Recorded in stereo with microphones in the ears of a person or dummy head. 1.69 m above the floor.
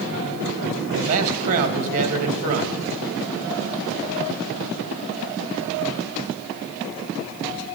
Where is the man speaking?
45° right (ahead or behind), 2.5 m.